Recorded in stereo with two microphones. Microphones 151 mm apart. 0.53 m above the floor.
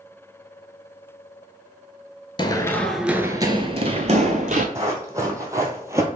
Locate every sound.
2.4 s running footsteps: 35° left (ahead or behind), 0.5 m; by 4.7 s 55° right (ahead or behind), 1.0 m
4.8 s running footsteps: 20° right (ahead or behind), 1.3 m